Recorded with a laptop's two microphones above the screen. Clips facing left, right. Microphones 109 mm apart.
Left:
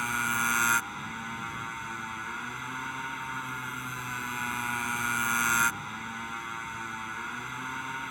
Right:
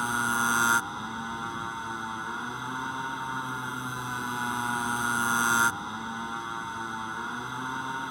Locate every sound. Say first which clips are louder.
0.0 s a motorcycle: right 3 dB; 20° right (ahead or behind)